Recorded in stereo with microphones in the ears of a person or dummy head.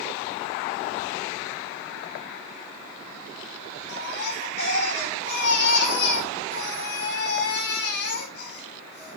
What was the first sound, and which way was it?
A baby crying, 65° left (ahead or behind).